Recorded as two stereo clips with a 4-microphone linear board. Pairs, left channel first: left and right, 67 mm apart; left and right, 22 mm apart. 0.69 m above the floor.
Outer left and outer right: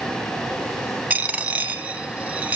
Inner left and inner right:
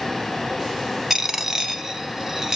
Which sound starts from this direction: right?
A dropped coin, at 1.1 s.